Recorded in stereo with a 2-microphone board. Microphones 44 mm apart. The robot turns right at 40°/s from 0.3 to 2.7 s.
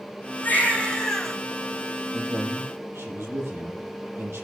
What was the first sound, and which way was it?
A baby crying, 140° left.